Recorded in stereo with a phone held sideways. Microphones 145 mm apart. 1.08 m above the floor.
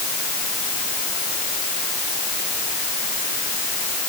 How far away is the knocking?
I don't hear knocking.